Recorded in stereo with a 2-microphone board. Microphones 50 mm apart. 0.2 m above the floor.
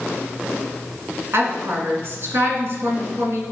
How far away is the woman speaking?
About 2 m.